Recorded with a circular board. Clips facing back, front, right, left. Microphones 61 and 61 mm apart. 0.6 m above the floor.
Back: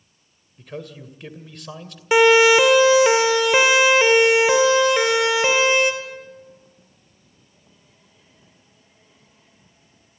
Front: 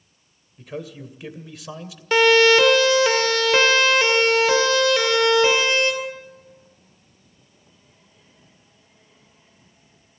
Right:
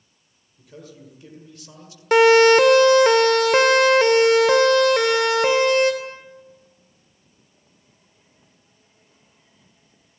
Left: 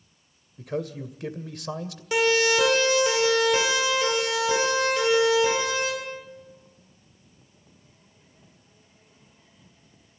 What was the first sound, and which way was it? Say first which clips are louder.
A man speaking: front 2 dB, left 12 dB; 85° left.